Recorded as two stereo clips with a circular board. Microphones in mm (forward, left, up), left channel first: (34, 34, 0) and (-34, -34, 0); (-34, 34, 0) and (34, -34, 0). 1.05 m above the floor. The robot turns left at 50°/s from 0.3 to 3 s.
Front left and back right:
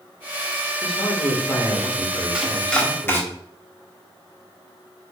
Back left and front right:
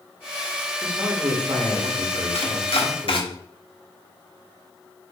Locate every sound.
0.8 s a man speaking: 20° left, 1.8 m; by 3.3 s 90° right, 1.8 m
2.3 s chopping: 145° left, 1.3 m; by 3.2 s 115° left, 1.3 m